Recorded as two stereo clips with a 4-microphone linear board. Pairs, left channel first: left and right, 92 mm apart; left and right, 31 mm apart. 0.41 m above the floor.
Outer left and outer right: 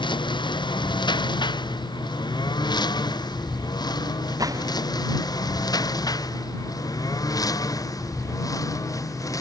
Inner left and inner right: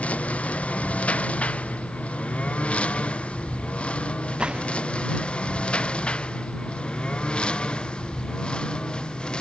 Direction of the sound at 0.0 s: 60° left (ahead or behind).